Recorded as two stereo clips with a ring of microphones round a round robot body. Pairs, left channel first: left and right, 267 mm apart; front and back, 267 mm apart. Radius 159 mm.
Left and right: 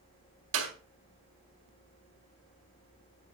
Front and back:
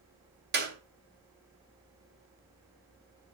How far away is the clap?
About 3 m.